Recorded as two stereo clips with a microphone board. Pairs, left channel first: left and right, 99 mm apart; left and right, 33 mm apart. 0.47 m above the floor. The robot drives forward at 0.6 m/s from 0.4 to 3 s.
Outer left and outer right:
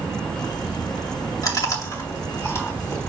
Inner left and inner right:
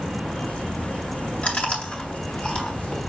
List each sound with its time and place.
1.4 s chewing: 40° left (ahead or behind), 2.0 m; by 3.1 s 30° left (ahead or behind), 2.5 m